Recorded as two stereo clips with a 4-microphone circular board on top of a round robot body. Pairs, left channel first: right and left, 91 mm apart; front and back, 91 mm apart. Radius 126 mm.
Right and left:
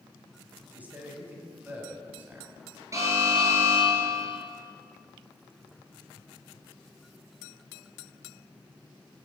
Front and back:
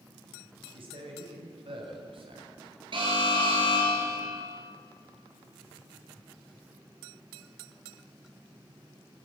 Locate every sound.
0.7 s a man speaking: 165° left, 4 m
2.9 s an alarm: 145° left, 7.5 m